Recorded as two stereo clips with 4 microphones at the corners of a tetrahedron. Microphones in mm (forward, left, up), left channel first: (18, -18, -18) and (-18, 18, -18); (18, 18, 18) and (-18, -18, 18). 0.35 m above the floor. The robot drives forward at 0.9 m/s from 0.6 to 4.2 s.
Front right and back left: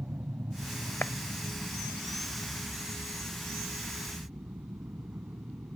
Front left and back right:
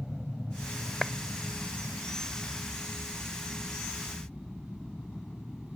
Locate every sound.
0.0 s an aircraft: 120° left; by 5.8 s 110° left
1.0 s a clap: 35° right; by 1.1 s 40° right